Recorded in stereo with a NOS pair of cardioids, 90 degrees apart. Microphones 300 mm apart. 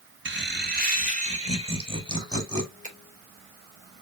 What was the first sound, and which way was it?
Laughter, 40° right.